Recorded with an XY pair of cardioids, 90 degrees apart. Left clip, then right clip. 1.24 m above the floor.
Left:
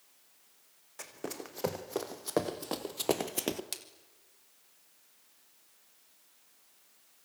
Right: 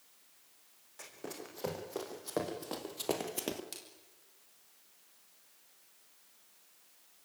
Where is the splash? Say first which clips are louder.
Left 6 dB; 60° left, 3.5 m.